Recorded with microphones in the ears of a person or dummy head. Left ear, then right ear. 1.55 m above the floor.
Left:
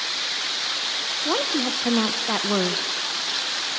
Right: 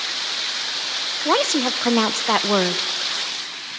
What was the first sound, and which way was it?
A woman speaking, 30° right (ahead or behind).